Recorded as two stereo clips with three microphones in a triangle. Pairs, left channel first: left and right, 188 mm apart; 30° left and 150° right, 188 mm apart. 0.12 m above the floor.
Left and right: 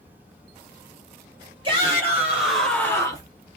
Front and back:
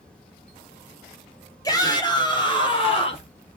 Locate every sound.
1.6 s a shout: 35° right, 2.0 m; by 3.3 s 45° left, 1.7 m